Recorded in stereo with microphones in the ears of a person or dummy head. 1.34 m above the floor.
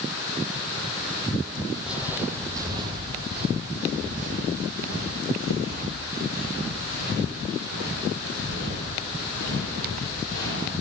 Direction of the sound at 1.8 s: 10° right (ahead or behind).